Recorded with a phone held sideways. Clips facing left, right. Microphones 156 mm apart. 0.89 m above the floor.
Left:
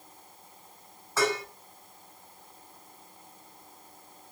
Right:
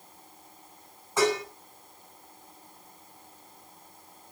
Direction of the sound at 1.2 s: 20° right (ahead or behind).